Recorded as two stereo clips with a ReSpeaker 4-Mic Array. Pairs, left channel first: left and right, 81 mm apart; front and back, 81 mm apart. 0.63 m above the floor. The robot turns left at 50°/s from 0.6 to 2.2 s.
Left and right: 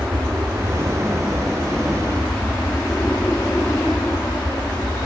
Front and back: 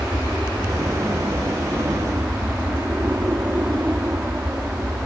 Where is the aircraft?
125° right; by 5.1 s 155° left.